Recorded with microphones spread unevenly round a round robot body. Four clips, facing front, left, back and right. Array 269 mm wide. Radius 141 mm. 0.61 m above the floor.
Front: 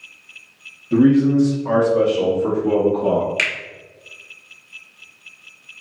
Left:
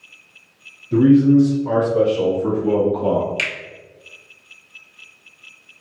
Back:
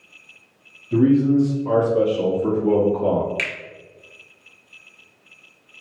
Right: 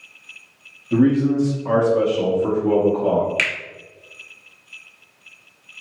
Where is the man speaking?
40° right, 1.2 m; by 3.3 s 160° left, 1.1 m.